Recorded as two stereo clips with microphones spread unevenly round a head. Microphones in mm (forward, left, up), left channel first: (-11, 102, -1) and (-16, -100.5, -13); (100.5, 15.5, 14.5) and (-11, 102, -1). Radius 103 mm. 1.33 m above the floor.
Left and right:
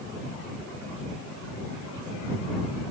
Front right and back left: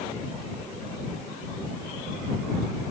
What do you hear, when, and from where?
Only background noise.